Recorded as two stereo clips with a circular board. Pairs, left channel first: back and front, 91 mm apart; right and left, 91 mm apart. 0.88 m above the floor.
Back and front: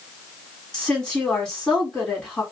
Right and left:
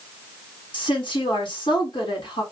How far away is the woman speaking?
About 1.8 m.